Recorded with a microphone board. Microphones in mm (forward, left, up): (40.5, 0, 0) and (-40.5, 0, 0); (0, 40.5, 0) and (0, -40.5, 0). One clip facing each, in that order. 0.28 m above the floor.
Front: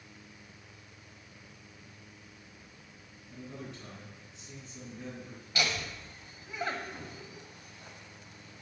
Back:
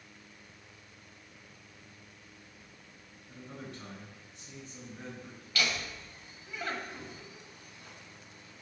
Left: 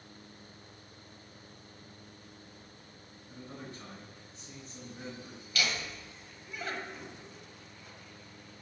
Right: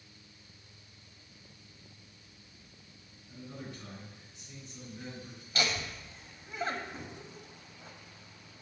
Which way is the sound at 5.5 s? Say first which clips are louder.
Front 1 dB, right 1 dB; 55° right.